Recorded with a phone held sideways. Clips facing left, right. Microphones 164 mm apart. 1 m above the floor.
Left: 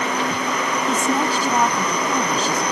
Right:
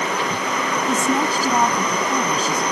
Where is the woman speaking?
5° right (ahead or behind).